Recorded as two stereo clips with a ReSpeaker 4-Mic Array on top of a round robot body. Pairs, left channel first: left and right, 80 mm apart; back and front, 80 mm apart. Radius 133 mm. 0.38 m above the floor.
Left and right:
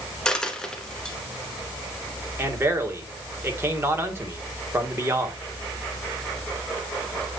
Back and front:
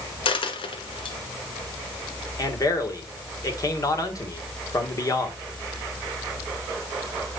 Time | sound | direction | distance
0.2 | a dropped coin | 170° left | 1.2 m
2.4 | a man speaking | 145° right | 2.5 m